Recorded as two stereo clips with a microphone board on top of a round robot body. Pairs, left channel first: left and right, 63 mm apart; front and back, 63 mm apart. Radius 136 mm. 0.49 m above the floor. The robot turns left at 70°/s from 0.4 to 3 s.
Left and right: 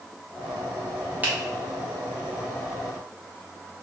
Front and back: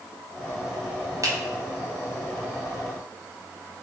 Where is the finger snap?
155° right, 1.6 m; by 1.3 s 160° right, 1.6 m.